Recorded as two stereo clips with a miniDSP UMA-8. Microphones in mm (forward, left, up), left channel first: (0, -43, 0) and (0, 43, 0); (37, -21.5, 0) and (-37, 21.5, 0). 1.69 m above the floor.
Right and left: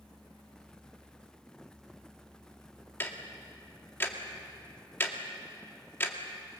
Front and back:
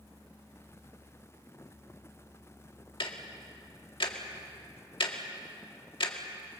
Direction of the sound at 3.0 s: 30° right.